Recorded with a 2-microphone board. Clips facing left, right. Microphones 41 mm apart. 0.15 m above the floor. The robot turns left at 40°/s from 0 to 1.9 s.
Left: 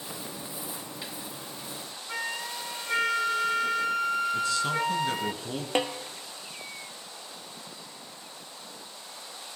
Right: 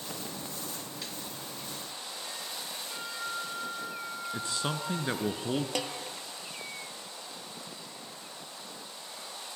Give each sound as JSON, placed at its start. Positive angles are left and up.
{"t": 2.1, "sound": "a flute", "side_deg": 75, "distance_m": 0.7}
{"t": 4.3, "sound": "a man speaking", "side_deg": -25, "distance_m": 2.0}
{"t": 5.8, "sound": "a snare drum", "side_deg": 30, "distance_m": 1.1}